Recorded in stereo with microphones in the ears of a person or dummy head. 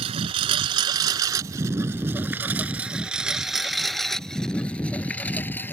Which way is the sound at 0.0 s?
40° right (ahead or behind).